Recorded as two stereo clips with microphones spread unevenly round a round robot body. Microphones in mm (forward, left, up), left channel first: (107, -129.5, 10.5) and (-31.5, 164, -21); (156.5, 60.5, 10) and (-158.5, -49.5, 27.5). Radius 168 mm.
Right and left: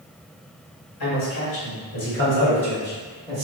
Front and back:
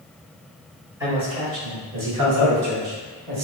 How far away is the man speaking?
About 1.7 m.